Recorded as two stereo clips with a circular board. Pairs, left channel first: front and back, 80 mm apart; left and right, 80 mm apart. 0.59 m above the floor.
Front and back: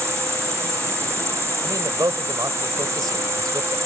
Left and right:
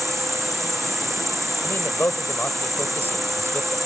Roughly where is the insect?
Behind.